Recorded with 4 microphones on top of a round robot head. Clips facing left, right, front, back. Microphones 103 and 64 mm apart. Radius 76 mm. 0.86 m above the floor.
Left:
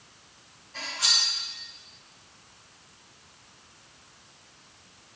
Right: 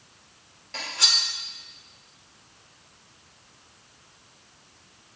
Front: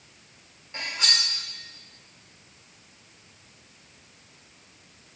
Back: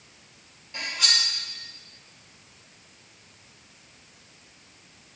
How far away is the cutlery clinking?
About 1.4 m.